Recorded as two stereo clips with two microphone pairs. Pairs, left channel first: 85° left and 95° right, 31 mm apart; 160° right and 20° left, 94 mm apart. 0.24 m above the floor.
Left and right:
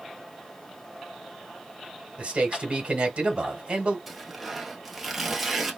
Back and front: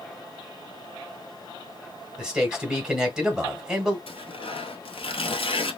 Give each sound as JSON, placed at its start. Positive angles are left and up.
{"t": 2.2, "sound": "a man speaking", "azimuth_deg": -55, "distance_m": 1.4}
{"t": 4.1, "sound": "tearing paper", "azimuth_deg": -175, "distance_m": 1.0}